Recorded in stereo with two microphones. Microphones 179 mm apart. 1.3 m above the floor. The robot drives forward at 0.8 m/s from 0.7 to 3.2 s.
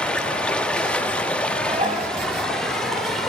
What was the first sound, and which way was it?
Running water, 5° left (ahead or behind).